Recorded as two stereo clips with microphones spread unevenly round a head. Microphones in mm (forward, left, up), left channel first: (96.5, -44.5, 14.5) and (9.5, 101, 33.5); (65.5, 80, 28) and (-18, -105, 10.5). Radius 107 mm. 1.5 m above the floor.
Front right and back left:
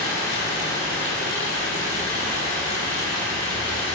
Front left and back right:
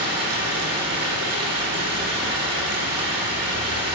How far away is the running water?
About 9.5 m.